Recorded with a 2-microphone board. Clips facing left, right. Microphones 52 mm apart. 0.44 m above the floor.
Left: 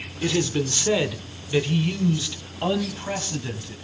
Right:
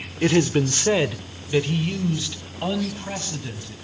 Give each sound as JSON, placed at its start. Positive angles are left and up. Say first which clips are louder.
{"t": 0.2, "sound": "a man speaking", "louder": "right 5 dB", "side_deg": -35, "distance_m": 0.8}